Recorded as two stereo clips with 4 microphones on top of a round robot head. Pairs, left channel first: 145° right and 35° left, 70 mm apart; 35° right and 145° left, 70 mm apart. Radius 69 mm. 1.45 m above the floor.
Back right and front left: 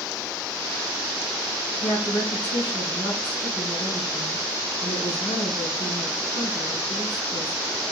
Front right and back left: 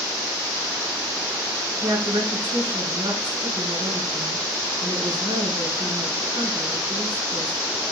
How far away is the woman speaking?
About 3.5 m.